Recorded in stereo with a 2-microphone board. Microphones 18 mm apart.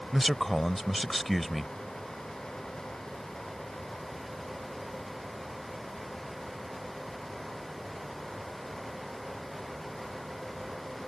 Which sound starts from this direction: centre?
A man speaking, at 0.1 s.